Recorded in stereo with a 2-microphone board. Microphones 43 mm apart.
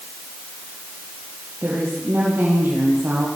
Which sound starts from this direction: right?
A woman speaking, at 1.6 s.